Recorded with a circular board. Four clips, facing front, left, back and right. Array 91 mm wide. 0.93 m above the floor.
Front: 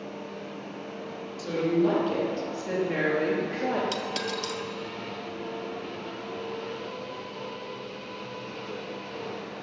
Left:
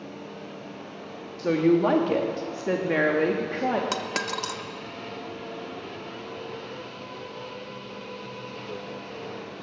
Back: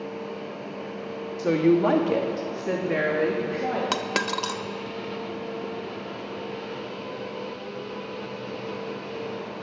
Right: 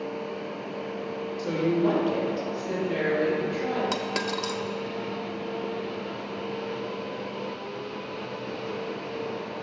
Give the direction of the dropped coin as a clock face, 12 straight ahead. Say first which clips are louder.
Right 1 dB, back 4 dB; 6 o'clock.